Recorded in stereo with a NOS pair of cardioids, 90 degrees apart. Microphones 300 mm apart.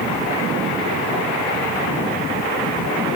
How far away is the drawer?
I don't hear a drawer.